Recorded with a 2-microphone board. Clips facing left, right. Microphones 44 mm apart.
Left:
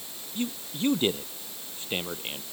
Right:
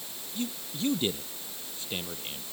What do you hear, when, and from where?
0.3 s a man speaking: 30° left (ahead or behind)